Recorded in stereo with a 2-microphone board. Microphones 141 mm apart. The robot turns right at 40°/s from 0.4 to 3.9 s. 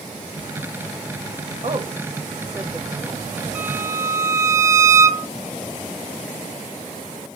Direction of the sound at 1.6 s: 45° right (ahead or behind).